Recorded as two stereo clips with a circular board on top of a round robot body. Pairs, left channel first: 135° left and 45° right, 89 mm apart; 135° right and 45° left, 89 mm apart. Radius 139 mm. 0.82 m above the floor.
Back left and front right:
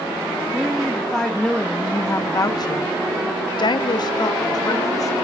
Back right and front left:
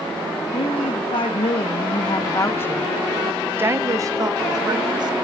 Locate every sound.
0.5 s a woman speaking: 135° right, 1.2 m; by 5.1 s 85° left, 1.3 m